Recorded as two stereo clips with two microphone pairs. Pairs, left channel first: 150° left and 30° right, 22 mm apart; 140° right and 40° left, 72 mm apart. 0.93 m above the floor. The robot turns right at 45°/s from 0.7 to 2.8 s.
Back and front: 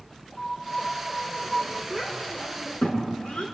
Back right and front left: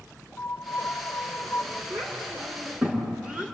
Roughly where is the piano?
Behind.